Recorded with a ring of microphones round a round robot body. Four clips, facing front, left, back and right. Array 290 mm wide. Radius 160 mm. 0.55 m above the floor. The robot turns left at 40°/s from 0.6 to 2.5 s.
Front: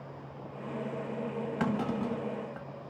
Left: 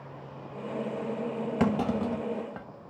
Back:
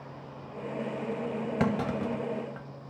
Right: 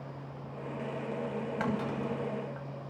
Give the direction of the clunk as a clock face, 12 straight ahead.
8 o'clock.